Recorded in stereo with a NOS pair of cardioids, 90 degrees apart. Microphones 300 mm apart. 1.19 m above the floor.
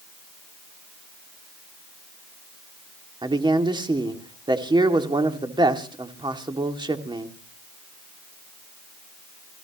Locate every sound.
3.2 s a man speaking: 15° right, 2.5 m